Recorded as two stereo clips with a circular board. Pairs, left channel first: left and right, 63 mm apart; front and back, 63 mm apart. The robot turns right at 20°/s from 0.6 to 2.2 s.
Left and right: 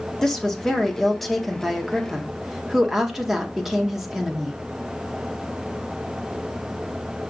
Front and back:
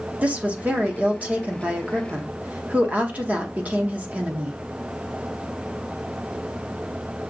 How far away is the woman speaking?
About 0.7 m.